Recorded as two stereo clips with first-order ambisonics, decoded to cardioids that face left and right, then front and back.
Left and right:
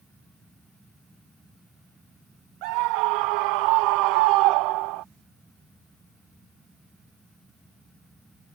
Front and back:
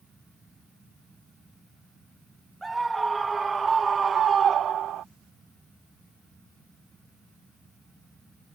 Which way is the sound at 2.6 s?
95° right.